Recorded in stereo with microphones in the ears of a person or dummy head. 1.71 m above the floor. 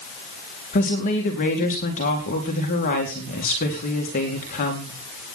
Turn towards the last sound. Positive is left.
turn(degrees=40)  # may be behind; listen again after turning